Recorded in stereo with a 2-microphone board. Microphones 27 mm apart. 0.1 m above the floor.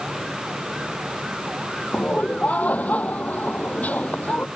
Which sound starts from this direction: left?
Laughter, at 1.9 s.